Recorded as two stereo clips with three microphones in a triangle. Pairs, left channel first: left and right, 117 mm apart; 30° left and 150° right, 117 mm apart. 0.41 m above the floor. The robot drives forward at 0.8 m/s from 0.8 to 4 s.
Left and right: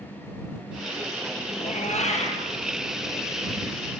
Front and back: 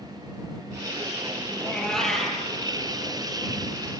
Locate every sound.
1.6 s a cat meowing: 110° left, 5 m; by 2.5 s 120° left, 5.5 m